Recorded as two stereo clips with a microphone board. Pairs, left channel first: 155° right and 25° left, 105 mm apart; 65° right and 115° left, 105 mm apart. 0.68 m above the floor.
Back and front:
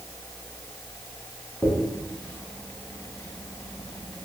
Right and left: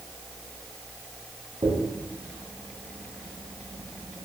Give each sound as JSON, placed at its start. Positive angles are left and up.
{"t": 1.6, "sound": "a dropped coin", "azimuth_deg": 125, "distance_m": 0.9}